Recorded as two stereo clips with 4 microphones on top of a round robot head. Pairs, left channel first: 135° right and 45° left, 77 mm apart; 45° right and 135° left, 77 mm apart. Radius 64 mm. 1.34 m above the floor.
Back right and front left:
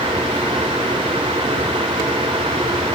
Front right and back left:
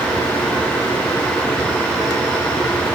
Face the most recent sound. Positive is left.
No sound to turn to.